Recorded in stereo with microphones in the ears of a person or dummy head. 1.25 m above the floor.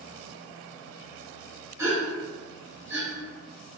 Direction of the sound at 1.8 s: 15° right (ahead or behind).